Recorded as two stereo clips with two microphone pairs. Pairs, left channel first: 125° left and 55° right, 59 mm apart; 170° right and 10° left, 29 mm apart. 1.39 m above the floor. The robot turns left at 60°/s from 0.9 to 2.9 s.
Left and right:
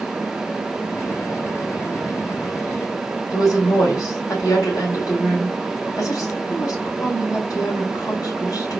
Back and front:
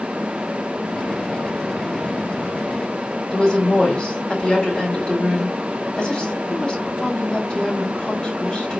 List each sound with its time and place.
3.3 s a woman speaking: 130° left, 3 m